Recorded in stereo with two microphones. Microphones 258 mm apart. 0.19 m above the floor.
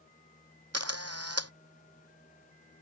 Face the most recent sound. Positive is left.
turn(degrees=-70)  # may be behind; listen again after turning